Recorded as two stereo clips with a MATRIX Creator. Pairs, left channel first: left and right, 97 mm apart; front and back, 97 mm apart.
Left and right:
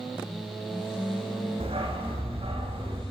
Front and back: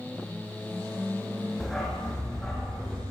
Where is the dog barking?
85° right, 8 m.